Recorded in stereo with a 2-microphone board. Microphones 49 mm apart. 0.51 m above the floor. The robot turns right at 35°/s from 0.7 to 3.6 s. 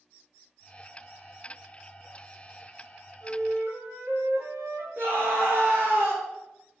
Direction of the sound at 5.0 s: 45° right (ahead or behind).